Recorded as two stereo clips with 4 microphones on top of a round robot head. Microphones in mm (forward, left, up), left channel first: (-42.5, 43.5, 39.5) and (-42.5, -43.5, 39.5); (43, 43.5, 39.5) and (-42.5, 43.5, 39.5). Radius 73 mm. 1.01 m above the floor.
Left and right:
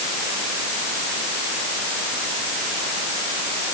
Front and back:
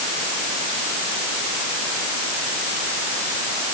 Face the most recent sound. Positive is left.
No sound to turn to.